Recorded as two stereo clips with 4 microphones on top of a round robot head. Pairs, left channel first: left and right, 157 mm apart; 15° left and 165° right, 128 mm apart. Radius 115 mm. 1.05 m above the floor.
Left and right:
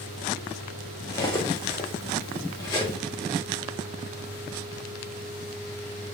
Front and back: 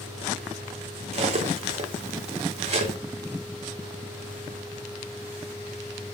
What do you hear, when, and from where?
1.1 s cutlery clinking: 160° left, 0.7 m